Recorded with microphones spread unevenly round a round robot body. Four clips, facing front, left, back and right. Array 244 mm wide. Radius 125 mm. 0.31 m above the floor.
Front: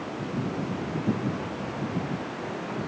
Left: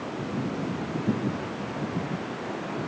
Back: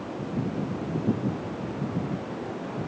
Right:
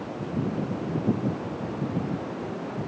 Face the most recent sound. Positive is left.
No sound to turn to.